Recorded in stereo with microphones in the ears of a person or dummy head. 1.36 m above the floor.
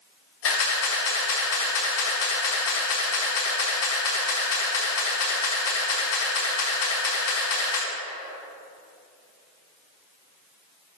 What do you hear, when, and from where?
0.4 s a camera shutter: 70° left (ahead or behind), 2.5 m